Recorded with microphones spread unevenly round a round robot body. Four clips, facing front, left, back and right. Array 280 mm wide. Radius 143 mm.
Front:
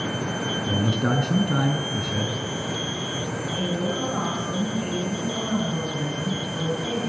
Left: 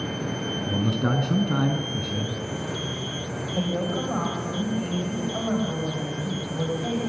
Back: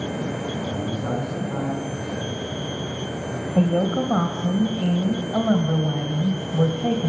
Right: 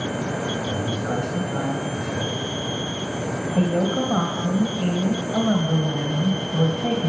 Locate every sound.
0.7 s a man speaking: 50° left, 5.5 m
3.5 s a woman speaking: 145° right, 4 m